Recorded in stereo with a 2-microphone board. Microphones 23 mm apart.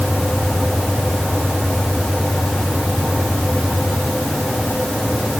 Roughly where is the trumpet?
No trumpet in this recording.